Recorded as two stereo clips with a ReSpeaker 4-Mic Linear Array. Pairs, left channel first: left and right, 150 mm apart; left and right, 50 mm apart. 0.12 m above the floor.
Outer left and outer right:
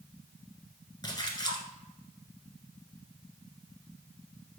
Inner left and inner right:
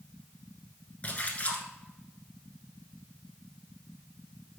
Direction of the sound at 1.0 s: 30° left (ahead or behind).